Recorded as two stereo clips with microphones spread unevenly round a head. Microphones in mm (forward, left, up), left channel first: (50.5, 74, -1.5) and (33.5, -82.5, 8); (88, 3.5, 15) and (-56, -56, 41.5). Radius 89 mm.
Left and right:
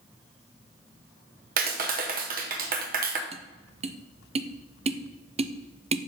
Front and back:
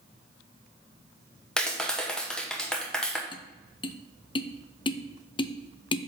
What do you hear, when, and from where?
1.6 s a clap: 65° right, 1.0 m
3.3 s tapping: 40° right, 0.6 m